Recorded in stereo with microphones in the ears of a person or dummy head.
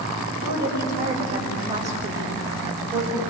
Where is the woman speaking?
50° right (ahead or behind), 7.5 m; by 3.2 s 25° right (ahead or behind), 5.5 m.